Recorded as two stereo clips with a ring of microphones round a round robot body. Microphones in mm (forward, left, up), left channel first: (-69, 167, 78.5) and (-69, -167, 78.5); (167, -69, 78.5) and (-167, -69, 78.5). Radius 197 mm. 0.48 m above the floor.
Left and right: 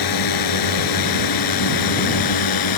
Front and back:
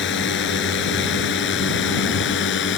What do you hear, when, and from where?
0.0 s a drone: 60° left